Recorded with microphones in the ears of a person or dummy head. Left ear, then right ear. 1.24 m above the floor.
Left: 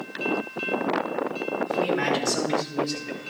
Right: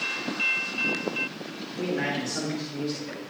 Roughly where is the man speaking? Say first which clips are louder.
Left 4 dB; left.